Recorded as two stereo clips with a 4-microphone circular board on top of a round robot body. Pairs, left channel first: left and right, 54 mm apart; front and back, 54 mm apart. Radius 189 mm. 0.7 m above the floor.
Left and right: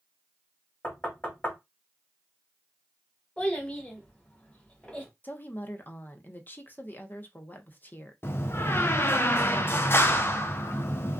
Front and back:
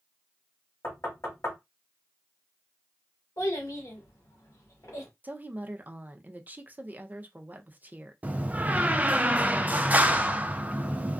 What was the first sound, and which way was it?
Knocking, 30° left.